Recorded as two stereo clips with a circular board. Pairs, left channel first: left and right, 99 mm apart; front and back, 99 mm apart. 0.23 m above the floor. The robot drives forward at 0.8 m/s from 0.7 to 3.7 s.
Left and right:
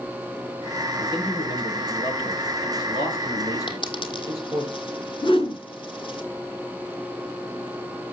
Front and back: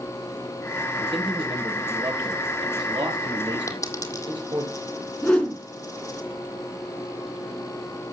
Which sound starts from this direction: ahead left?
A dropped coin, at 3.7 s.